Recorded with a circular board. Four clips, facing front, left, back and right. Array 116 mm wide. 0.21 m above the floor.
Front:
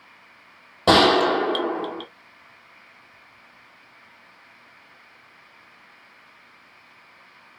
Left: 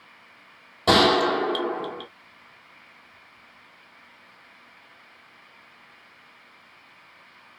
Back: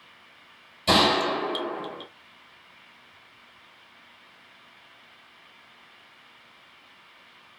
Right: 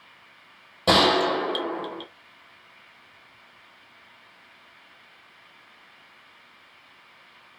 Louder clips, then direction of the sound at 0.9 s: Left 1 dB, front 6 dB; straight ahead.